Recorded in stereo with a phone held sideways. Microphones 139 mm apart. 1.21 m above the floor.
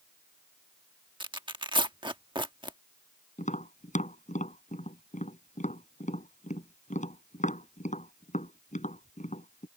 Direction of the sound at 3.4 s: 65° left (ahead or behind).